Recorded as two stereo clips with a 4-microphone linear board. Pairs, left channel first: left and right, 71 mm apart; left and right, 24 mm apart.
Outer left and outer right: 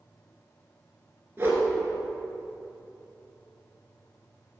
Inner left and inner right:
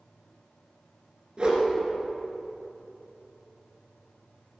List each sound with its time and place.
1.4 s a whoosh: 30° right (ahead or behind), 2.5 m